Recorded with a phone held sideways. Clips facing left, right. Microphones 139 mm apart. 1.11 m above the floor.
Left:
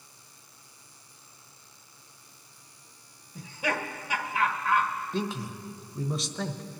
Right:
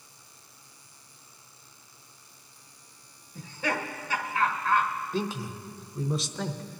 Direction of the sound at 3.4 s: 15° left (ahead or behind).